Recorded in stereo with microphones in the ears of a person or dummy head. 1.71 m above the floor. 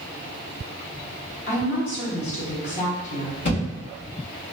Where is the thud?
30° left (ahead or behind), 1.2 m.